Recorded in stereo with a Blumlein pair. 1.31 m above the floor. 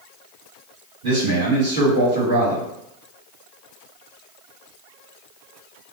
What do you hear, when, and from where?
1.0 s a man speaking: 50° right, 1.8 m